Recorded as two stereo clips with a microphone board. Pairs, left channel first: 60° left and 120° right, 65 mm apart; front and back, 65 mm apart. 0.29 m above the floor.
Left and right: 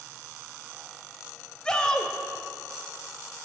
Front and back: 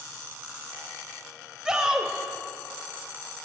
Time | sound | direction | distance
1.6 | a shout | 115° left | 1.0 m